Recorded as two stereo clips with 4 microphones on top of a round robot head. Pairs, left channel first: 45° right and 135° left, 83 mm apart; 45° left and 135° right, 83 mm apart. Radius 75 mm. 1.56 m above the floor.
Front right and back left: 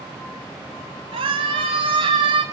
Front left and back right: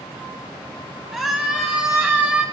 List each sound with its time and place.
1.1 s a scream: 145° left, 4 m; by 2.4 s 155° left, 5.5 m